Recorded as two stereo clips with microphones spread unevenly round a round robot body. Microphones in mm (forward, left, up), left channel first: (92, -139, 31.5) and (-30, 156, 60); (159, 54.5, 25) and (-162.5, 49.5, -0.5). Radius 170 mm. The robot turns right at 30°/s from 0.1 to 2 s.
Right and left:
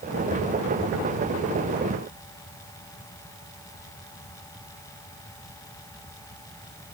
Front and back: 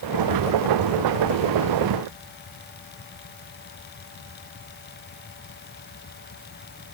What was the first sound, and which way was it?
Only background noise.